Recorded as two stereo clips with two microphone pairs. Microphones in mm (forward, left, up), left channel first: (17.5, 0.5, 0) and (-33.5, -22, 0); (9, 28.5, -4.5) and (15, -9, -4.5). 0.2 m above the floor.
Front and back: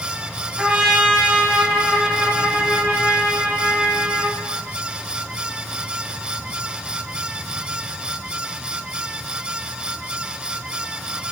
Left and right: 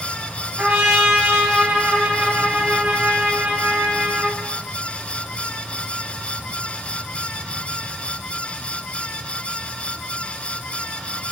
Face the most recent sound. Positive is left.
turn(degrees=-95)